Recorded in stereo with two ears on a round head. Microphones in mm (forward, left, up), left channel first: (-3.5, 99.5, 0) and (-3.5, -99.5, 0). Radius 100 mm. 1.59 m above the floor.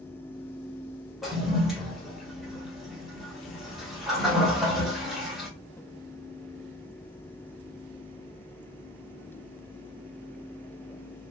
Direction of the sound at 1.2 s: Centre (ahead or behind).